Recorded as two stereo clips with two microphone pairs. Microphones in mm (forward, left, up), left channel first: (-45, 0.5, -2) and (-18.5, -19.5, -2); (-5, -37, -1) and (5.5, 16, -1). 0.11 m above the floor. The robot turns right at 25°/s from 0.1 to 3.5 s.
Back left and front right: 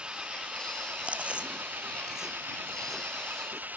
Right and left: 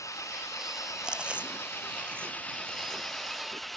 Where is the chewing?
5° left; by 3.8 s 65° left.